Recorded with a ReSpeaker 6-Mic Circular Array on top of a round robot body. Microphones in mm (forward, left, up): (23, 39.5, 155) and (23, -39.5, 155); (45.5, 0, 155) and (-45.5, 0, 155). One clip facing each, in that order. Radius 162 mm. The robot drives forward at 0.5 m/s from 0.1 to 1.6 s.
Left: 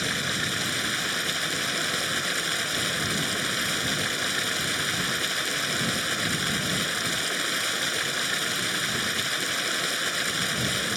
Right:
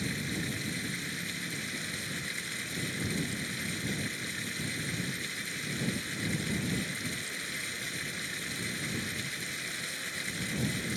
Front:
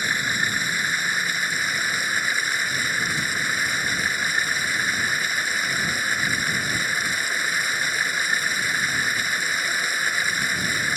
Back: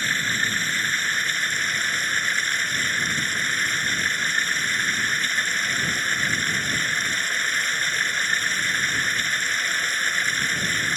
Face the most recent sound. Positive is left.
turn(degrees=80)